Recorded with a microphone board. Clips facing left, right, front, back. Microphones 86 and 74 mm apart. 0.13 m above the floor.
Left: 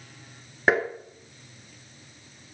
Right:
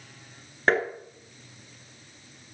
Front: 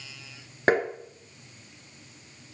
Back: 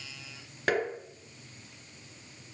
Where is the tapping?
10° left, 2 m.